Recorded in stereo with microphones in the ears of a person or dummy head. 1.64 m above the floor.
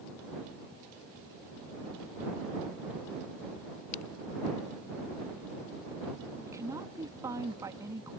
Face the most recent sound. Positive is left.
turn(degrees=-20)  # may be behind; listen again after turning